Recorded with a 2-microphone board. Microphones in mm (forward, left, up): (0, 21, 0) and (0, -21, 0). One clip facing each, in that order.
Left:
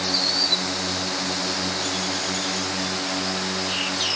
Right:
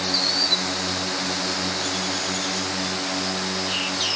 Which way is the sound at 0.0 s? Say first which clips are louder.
Even; 10° right (ahead or behind).